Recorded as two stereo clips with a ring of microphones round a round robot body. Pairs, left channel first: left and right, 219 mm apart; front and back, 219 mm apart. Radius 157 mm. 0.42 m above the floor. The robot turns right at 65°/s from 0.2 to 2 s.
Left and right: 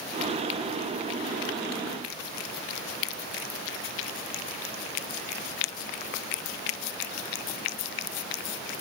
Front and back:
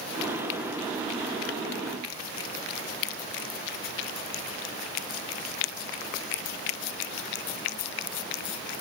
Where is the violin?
I don't hear a violin.